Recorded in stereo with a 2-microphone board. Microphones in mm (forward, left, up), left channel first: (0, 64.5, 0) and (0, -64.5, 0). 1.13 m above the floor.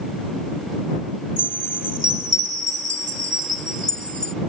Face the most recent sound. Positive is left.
turn(degrees=-75)  # may be behind; listen again after turning